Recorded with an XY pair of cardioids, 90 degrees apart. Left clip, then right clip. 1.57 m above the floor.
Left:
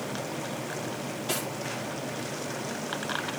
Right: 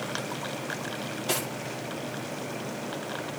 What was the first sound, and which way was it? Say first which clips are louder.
Cutlery clinking: right 2 dB; 35° right.